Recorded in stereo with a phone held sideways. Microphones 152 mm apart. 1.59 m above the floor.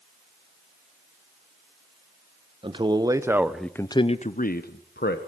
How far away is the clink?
I don't hear a clink.